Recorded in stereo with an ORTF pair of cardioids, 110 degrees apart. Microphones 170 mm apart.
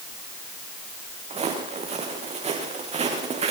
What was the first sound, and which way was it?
Footsteps, 40° right.